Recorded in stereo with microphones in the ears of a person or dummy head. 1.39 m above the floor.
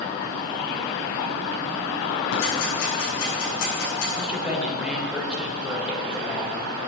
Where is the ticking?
70° left (ahead or behind), 7 m.